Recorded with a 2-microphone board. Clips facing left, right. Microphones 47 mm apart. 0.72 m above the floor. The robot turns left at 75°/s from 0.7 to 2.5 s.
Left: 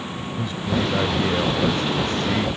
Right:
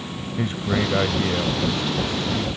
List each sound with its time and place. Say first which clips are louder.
0.4 s a man speaking: right 1 dB; 145° right; by 2.5 s 85° left